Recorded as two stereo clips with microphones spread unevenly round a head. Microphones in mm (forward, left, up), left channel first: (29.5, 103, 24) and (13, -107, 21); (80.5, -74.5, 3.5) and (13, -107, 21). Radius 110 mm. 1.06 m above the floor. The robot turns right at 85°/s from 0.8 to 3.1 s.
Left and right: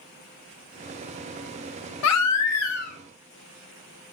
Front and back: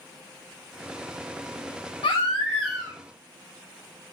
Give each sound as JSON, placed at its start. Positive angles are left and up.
{"t": 2.0, "sound": "a baby crying", "azimuth_deg": 65, "distance_m": 0.6}